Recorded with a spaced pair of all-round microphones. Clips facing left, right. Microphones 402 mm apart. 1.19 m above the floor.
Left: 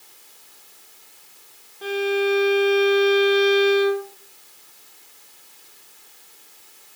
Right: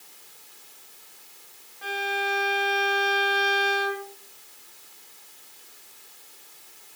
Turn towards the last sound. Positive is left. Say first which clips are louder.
# left 11 dB
turn(degrees=50)  # may be behind; listen again after turning